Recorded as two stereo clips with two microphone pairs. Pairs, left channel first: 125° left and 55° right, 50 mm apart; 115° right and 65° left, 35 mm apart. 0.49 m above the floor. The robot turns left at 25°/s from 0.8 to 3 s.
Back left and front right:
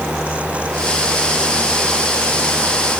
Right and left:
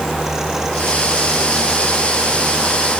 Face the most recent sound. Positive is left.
No sound to turn to.